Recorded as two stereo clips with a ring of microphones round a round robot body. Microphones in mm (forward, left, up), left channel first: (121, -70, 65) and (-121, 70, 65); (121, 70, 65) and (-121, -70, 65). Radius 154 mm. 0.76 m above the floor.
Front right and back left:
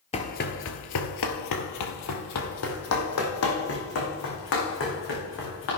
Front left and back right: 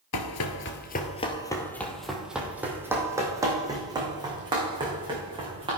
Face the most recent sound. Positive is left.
turn(degrees=-75)